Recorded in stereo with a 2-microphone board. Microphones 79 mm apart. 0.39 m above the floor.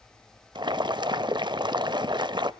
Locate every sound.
0.6 s boiling: 65° right (ahead or behind), 0.5 m